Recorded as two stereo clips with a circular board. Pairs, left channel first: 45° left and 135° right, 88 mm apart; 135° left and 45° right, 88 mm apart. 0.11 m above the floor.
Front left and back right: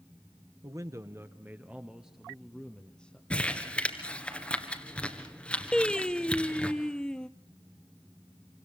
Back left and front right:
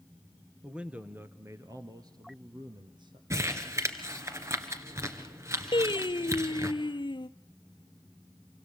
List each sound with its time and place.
0.6 s a man speaking: 125° right, 1.5 m; by 3.2 s 30° right, 2.5 m
3.3 s crumpling: 25° right, 1.9 m
5.7 s singing: 125° left, 0.8 m